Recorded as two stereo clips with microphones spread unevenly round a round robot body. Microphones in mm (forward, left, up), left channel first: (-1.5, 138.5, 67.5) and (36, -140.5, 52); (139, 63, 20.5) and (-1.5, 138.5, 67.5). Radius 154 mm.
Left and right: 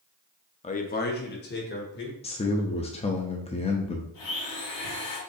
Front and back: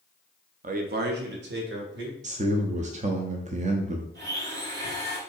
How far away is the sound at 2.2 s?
About 0.6 m.